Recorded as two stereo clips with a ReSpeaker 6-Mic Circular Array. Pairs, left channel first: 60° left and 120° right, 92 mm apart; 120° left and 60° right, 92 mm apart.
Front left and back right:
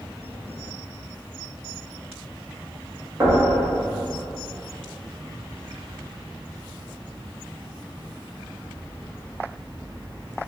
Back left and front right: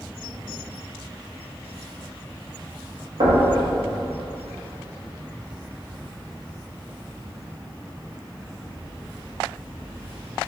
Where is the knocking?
60° right, 1.4 m.